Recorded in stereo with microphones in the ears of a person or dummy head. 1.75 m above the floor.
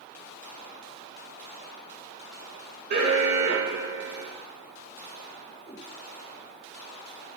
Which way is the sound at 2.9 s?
50° right (ahead or behind).